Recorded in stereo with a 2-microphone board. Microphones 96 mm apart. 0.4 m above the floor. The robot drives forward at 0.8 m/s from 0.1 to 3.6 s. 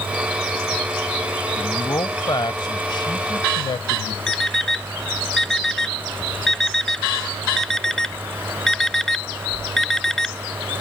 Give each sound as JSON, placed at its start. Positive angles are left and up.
{"t": 1.6, "sound": "a man speaking", "side_deg": 40}
{"t": 4.3, "sound": "an alarm clock", "side_deg": 5}